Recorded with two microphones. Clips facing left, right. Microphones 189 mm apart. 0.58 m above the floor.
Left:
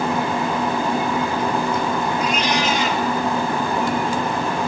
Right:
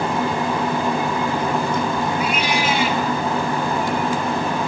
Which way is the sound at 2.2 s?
5° right (ahead or behind).